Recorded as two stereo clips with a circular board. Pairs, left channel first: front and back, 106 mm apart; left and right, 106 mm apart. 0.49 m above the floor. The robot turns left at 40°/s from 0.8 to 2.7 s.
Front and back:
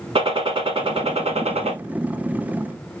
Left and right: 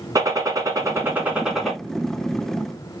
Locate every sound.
0.1 s a gunshot: 145° right, 1.4 m; by 1.8 s 175° left, 1.4 m